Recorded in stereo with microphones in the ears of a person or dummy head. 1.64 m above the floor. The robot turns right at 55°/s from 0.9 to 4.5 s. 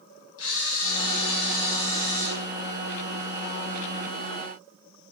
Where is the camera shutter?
75° left, 1.1 m; by 2.3 s 155° left, 1.1 m.